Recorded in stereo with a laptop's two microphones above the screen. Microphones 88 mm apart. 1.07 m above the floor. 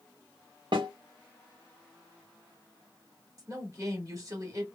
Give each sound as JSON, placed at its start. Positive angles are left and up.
{"t": 0.7, "sound": "a snare drum", "side_deg": -60, "distance_m": 1.3}
{"t": 3.4, "sound": "a woman speaking", "side_deg": -35, "distance_m": 1.7}